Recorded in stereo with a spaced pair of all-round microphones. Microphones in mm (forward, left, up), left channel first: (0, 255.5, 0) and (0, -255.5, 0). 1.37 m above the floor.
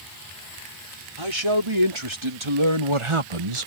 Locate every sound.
1.2 s a man speaking: 60° right (ahead or behind); by 3.7 s 75° right (ahead or behind)